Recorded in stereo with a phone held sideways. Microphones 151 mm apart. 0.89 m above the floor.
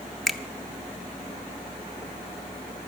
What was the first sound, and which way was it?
A finger snap, centre (ahead or behind).